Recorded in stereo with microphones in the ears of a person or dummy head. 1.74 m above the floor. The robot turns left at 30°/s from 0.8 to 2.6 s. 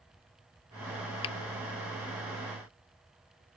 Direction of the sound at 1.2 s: 30° left (ahead or behind).